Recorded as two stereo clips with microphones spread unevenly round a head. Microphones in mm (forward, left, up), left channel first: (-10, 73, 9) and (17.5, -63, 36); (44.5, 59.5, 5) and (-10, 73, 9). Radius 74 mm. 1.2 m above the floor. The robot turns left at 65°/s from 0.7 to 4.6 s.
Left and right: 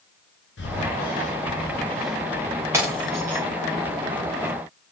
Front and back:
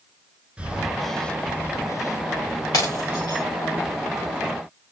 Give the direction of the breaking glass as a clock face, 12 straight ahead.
12 o'clock.